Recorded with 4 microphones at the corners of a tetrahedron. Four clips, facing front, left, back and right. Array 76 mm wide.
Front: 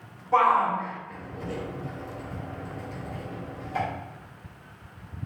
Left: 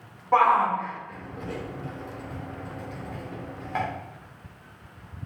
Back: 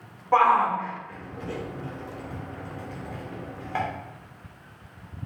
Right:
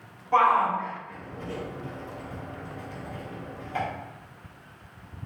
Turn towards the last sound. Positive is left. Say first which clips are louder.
# left 1 dB, back 1 dB
turn(degrees=145)